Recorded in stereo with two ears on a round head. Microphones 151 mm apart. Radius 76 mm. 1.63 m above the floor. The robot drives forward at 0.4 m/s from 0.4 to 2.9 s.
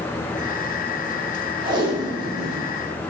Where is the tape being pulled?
30° right (ahead or behind), 0.8 m; by 2.7 s 20° right (ahead or behind), 1.1 m.